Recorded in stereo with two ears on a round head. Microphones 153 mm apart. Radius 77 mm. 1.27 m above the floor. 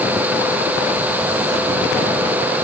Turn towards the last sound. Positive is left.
No sound to turn to.